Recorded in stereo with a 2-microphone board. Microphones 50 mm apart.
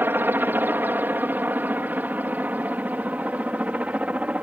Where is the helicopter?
45° right (ahead or behind); by 4.4 s 30° right (ahead or behind).